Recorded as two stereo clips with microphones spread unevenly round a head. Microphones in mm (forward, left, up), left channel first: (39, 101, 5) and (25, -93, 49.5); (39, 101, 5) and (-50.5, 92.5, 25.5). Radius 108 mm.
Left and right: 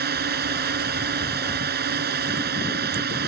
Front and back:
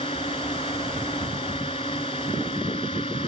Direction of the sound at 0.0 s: 55° right.